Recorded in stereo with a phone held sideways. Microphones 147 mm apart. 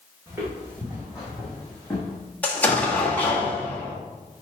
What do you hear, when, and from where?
0.3 s footsteps: 20° right (ahead or behind), 3 m; by 2.2 s 10° left (ahead or behind), 3 m
2.4 s an explosion: 10° left (ahead or behind), 1.6 m